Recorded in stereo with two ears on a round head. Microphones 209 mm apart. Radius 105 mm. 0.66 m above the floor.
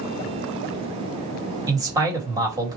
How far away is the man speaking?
About 1.5 m.